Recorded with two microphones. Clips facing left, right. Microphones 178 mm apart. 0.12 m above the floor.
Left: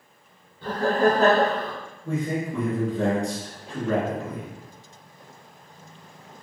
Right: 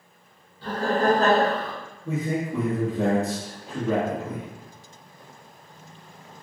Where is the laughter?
25° left (ahead or behind), 1.6 m; by 1.7 s 5° right (ahead or behind), 1.9 m.